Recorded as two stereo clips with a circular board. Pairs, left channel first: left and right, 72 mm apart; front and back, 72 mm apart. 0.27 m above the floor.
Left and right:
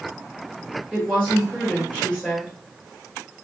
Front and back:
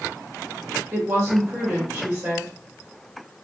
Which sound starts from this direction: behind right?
A woman speaking, at 0.9 s.